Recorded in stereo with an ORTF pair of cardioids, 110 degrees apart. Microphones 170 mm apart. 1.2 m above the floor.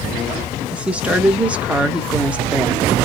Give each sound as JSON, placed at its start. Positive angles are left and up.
{"t": 0.7, "sound": "a woman speaking", "azimuth_deg": -10, "distance_m": 0.9}